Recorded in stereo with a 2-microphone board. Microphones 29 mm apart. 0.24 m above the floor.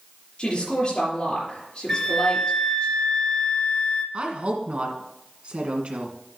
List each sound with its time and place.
0.4 s a woman speaking: 40° left (ahead or behind), 4.5 m
1.9 s a flute: 25° left (ahead or behind), 1.9 m
4.1 s a woman speaking: 45° right (ahead or behind), 2 m